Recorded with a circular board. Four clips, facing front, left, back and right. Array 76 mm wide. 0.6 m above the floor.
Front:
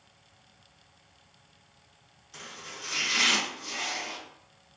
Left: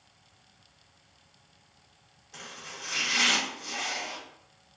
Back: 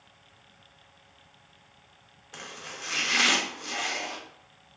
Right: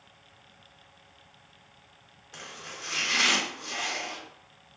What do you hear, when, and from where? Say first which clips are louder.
2.3 s chopping: right 1 dB, back 2 dB; 160° right, 0.6 m